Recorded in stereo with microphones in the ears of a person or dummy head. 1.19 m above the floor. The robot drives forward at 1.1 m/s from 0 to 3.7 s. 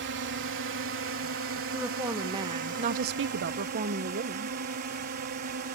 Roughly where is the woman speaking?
Centre.